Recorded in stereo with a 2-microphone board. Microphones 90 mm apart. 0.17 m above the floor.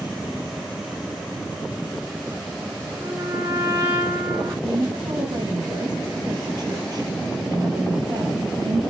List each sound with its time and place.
3.0 s a trumpet: 30° right (ahead or behind), 3 m
4.7 s a woman speaking: 50° right (ahead or behind), 4 m